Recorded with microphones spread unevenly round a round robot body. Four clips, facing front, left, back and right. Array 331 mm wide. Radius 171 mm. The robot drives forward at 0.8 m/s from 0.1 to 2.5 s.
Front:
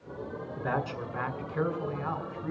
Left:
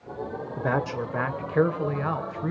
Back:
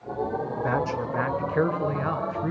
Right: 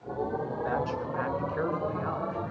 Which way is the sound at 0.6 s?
100° left.